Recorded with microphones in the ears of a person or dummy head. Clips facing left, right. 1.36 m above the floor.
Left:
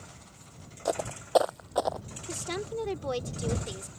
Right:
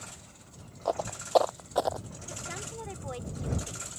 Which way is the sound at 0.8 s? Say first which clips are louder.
Even; 25° left (ahead or behind).